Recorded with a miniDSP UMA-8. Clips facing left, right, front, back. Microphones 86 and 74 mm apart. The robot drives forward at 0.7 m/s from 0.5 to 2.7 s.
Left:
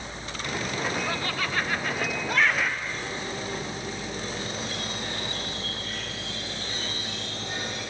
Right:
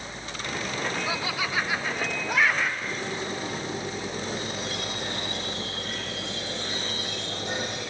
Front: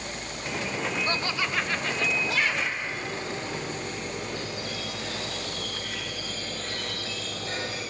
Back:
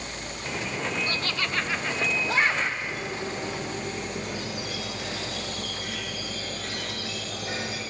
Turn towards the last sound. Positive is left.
turn(degrees=-110)